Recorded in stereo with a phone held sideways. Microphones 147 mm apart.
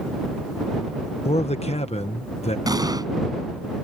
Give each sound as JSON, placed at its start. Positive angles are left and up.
{"t": 1.2, "sound": "a man speaking", "side_deg": 45}
{"t": 2.7, "sound": "an explosion", "side_deg": -25}